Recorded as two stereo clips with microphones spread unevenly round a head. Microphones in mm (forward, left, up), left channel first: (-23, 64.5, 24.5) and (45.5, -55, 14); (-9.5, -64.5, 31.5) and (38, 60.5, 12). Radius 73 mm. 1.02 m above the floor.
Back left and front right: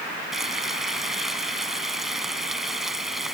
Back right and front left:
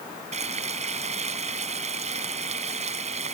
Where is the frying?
30° left.